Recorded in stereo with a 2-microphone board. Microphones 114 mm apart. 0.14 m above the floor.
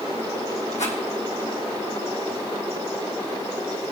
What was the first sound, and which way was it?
A rattle, 80° left.